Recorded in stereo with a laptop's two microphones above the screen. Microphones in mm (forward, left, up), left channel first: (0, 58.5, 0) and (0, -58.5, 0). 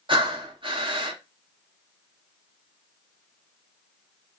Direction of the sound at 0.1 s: 45° right (ahead or behind).